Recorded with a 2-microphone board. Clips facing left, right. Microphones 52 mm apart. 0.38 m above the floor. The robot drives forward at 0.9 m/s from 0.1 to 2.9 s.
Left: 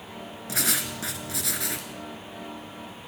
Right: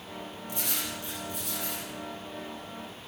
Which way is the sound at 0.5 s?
80° left.